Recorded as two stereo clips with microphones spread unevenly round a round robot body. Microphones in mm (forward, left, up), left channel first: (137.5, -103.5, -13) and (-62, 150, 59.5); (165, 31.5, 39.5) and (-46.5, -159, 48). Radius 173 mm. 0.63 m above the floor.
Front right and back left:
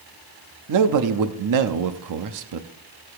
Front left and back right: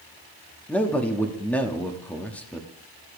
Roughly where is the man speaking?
Behind left.